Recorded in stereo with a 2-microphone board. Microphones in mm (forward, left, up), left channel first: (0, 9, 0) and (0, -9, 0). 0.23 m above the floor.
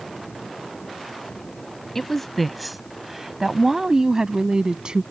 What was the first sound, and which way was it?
A woman speaking, 15° left (ahead or behind).